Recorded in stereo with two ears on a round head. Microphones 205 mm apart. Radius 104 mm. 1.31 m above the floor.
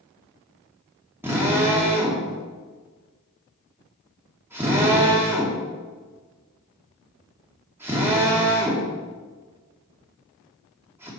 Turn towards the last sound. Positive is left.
turn(degrees=-10)  # may be behind; listen again after turning